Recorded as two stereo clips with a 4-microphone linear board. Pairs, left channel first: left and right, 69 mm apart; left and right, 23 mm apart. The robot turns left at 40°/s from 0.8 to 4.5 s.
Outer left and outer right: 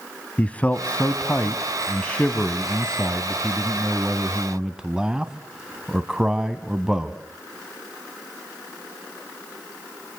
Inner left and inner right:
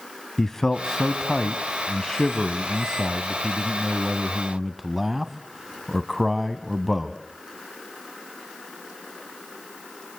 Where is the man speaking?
20° left (ahead or behind), 1.0 m; by 7.2 s 10° right (ahead or behind), 1.0 m.